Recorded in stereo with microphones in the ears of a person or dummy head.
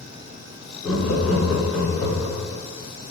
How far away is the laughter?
About 1.4 m.